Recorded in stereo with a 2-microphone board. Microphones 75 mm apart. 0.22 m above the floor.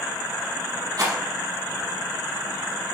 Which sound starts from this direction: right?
A rattle, at 1.0 s.